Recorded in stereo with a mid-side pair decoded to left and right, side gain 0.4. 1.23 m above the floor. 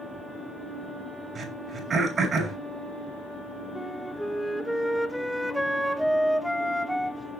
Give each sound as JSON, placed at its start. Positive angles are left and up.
{"t": 1.4, "sound": "throat clearing", "azimuth_deg": -55, "distance_m": 6.5}
{"t": 3.8, "sound": "a flute", "azimuth_deg": -10, "distance_m": 2.0}